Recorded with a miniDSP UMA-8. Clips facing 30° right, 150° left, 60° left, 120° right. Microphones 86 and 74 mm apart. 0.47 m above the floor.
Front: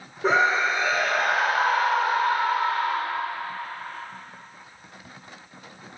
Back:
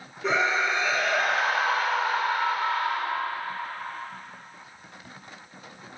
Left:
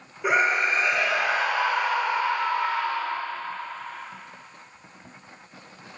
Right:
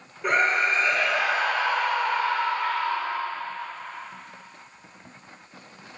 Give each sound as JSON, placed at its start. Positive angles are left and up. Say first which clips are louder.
{"t": 0.2, "sound": "a scream", "louder": "front 4 dB, even", "azimuth_deg": -20, "distance_m": 1.3}